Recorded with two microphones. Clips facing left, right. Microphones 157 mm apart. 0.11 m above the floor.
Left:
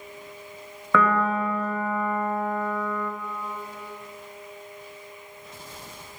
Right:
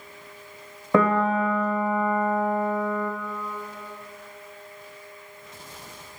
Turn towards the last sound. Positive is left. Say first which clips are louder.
# right 2 dB
turn(degrees=-35)  # may be behind; listen again after turning